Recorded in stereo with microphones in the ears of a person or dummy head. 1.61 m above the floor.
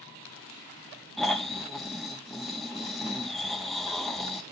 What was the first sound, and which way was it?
Snoring, centre (ahead or behind).